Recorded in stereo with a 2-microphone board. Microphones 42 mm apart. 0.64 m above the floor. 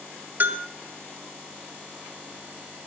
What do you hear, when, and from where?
0.4 s a bell: 45° right (ahead or behind), 1.3 m